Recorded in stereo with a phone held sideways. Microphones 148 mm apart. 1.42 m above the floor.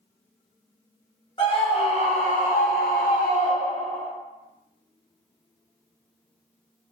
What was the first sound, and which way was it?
A scream, 35° left (ahead or behind).